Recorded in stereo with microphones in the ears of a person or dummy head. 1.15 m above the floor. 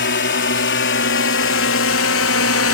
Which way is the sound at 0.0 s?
50° left (ahead or behind).